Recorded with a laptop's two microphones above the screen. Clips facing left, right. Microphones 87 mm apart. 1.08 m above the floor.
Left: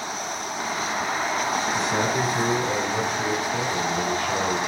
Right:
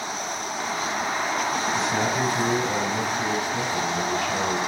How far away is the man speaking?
About 3 m.